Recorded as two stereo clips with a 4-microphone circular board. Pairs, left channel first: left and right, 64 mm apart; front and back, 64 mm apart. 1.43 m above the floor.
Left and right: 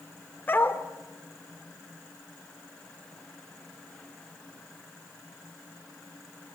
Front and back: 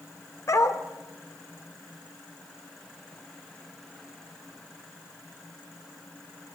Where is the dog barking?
30° left, 2.0 m.